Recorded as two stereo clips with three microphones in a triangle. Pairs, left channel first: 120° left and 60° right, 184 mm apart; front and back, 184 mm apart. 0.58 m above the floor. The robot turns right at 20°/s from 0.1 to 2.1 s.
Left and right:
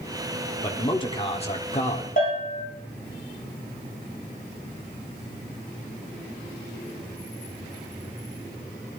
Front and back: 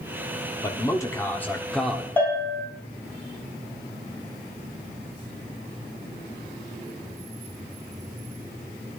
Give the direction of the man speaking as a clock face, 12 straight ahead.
10 o'clock.